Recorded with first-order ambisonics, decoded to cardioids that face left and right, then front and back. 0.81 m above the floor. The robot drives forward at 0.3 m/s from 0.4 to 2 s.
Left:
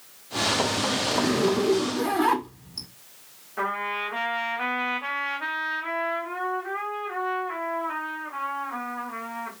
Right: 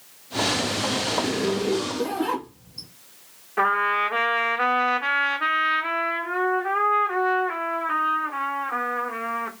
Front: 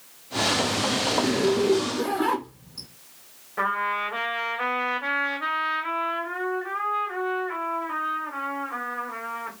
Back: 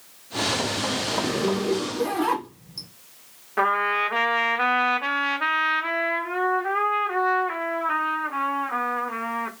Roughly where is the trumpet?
Behind right.